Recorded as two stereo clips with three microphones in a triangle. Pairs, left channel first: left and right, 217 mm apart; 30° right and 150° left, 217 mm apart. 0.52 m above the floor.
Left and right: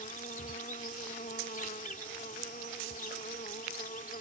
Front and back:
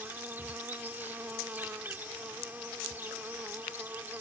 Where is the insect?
75° left.